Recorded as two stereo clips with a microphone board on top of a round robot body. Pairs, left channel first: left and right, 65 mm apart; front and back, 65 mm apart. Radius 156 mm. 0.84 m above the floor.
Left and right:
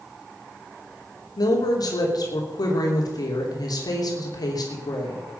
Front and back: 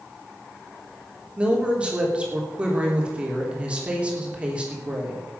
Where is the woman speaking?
105° left, 3 m.